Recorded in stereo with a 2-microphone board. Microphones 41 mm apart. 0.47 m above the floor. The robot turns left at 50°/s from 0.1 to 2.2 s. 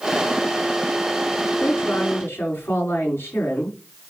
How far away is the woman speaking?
About 6.5 m.